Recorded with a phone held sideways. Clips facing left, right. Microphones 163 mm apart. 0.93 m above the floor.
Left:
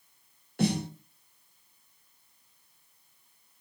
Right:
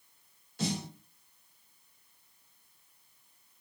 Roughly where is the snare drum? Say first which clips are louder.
Left 7 dB; left.